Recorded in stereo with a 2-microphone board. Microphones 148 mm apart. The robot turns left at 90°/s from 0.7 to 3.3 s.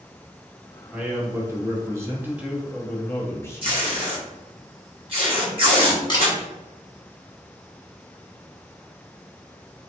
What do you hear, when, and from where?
0.9 s a man speaking: 5° right (ahead or behind), 1.0 m; by 4.6 s 15° left (ahead or behind), 1.0 m
3.6 s tape being pulled: 40° right (ahead or behind), 1.9 m
6.1 s a camera shutter: 30° left (ahead or behind), 1.4 m